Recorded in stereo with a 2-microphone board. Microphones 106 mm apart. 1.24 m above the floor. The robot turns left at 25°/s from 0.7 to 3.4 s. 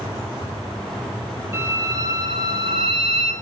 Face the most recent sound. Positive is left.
turn(degrees=-70)